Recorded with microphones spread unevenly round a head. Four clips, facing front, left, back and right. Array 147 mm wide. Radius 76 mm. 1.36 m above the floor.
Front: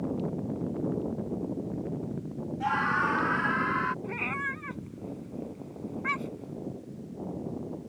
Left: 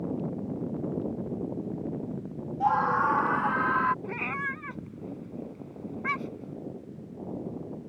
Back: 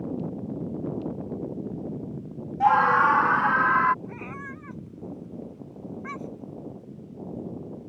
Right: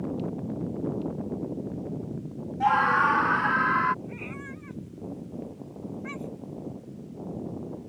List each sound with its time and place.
2.6 s a scream: 175° left; by 3.9 s 160° left
4.0 s a cat meowing: 45° left